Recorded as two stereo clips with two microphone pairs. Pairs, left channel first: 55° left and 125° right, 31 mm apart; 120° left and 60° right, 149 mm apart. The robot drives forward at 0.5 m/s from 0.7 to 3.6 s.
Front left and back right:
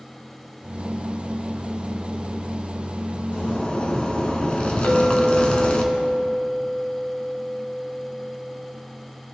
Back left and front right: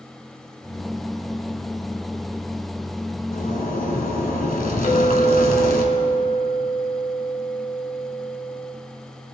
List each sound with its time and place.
3.3 s a zipper: 105° left, 1.3 m; by 5.8 s 110° left, 1.3 m
4.8 s a clink: 90° left, 1.8 m